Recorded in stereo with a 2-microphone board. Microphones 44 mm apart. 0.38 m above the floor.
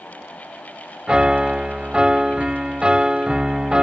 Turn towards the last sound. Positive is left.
turn(degrees=-20)  # may be behind; listen again after turning